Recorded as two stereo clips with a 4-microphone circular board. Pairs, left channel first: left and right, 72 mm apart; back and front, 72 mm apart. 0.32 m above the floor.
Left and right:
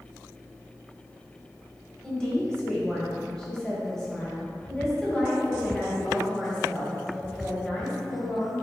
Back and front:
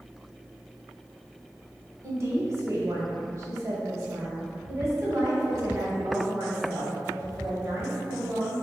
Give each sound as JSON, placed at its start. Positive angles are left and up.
{"t": 2.0, "sound": "a woman speaking", "azimuth_deg": 15, "distance_m": 1.1}